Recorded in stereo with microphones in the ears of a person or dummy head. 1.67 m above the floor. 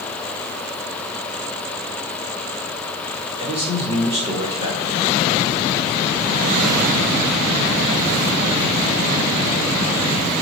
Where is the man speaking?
30° right (ahead or behind), 4.5 m.